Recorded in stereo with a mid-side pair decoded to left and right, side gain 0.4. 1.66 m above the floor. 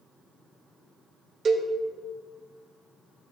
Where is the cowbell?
55° right, 1.0 m.